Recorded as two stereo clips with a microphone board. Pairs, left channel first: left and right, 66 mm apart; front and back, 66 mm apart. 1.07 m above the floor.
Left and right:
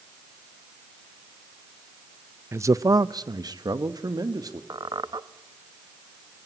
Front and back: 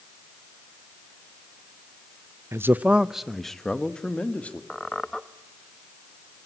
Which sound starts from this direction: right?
A squeak, at 4.7 s.